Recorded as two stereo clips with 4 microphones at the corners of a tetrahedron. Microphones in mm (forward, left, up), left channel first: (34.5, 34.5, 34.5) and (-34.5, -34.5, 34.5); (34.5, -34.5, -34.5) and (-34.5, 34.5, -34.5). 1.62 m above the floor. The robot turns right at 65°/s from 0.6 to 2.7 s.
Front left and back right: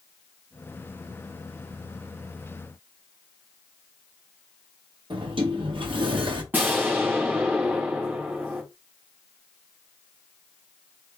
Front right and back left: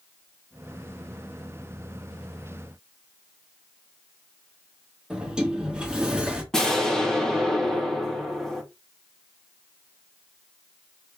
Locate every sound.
5.1 s a sliding door: 145° right, 1.2 m
6.5 s an explosion: 120° right, 1.2 m